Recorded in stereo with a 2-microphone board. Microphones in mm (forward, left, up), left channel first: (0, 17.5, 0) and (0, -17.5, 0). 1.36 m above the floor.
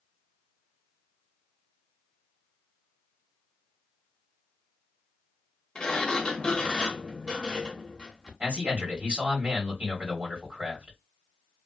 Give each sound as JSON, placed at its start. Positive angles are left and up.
{"t": 5.8, "sound": "a sliding door", "side_deg": 20, "distance_m": 0.6}
{"t": 8.4, "sound": "a man speaking", "side_deg": -45, "distance_m": 1.7}